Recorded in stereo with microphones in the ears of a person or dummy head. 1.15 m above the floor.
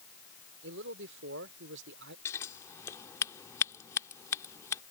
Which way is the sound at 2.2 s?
25° left (ahead or behind).